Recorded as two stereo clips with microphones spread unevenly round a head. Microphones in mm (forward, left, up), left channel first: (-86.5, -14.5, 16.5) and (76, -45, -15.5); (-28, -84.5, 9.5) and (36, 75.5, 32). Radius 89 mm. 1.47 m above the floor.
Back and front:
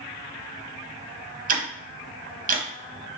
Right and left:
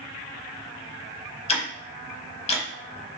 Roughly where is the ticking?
Ahead right.